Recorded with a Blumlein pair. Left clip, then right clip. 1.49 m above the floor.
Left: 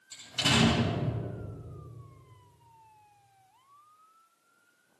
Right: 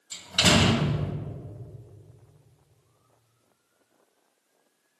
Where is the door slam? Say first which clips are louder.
Right 6 dB; 55° right, 2.0 m.